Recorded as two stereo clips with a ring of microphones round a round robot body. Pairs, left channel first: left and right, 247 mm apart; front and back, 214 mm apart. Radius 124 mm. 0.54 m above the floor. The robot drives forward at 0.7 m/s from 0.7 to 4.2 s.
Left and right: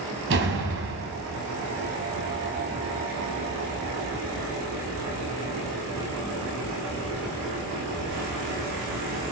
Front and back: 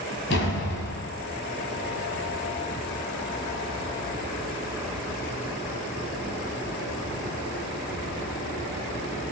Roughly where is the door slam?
Ahead right.